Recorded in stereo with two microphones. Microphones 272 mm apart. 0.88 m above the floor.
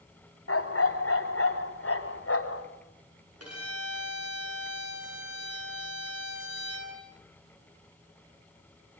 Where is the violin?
65° right (ahead or behind), 8.5 m.